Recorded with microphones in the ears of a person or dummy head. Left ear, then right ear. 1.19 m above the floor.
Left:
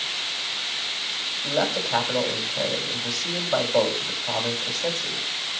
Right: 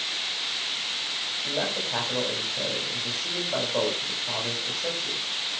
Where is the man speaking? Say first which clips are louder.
Left 6 dB; 75° left (ahead or behind), 8.5 m.